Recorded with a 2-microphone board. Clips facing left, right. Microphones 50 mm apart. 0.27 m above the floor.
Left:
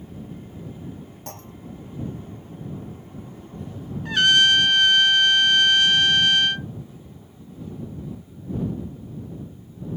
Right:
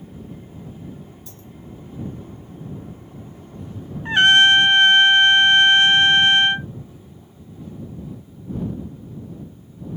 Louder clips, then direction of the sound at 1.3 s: Left 2 dB; 60° left (ahead or behind).